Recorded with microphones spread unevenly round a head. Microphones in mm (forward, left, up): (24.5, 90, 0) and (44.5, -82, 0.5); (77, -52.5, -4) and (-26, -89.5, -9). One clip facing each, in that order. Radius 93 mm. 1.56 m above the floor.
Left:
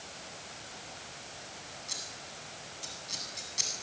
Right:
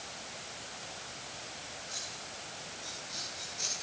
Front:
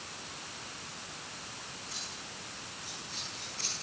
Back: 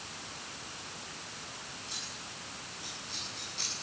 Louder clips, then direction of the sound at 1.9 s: Right 1 dB, even; 125° left.